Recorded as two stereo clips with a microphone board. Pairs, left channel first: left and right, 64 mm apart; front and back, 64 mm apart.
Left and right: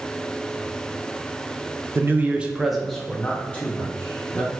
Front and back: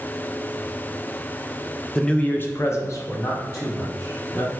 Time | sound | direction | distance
1.9 | a man speaking | 75° right | 0.5 m